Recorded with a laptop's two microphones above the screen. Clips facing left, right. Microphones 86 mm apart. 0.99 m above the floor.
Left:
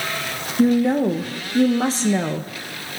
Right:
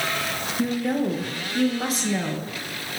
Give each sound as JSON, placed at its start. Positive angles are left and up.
{"t": 0.6, "sound": "a woman speaking", "side_deg": 30, "distance_m": 0.8}